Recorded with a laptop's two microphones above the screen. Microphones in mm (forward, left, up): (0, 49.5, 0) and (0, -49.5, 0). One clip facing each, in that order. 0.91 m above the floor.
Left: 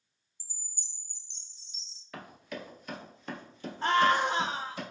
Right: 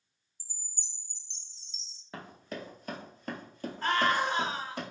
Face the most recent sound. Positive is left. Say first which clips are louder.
# left 3 dB
turn(degrees=25)  # may be behind; listen again after turning